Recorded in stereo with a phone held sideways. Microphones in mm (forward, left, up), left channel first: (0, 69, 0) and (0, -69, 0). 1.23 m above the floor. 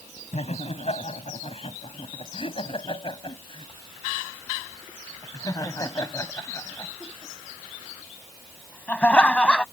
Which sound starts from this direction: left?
Laughter, at 0.3 s.